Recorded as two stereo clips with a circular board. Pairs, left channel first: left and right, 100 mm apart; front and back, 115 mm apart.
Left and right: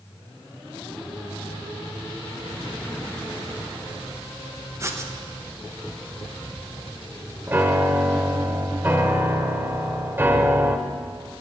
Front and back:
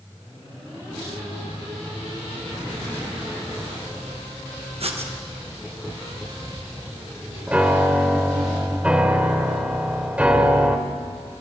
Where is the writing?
150° right, 1.2 m.